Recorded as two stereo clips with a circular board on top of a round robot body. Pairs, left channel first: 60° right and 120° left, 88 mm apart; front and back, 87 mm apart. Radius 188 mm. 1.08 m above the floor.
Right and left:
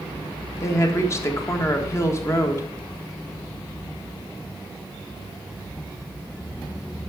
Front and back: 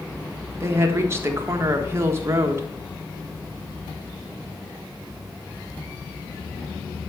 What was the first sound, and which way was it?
A woman speaking, 120° right.